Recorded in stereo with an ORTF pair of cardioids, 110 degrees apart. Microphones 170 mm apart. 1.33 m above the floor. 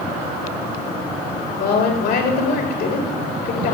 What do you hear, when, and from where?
1.5 s a woman speaking: 65° left, 3 m